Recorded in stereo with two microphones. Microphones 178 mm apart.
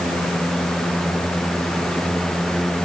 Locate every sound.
Only background noise.